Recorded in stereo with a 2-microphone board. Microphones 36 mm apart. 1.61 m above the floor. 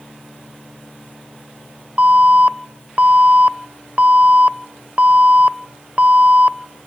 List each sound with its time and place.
2.0 s an alarm: 40° right (ahead or behind), 0.6 m